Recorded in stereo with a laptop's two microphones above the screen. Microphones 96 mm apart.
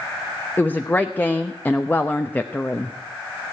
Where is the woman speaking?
20° left (ahead or behind), 0.8 m.